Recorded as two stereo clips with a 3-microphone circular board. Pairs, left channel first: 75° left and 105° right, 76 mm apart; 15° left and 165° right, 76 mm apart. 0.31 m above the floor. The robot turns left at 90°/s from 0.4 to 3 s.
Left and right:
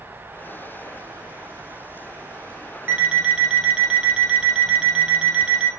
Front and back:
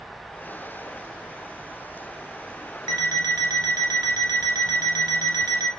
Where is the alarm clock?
165° right, 0.9 m; by 5.7 s straight behind, 0.9 m.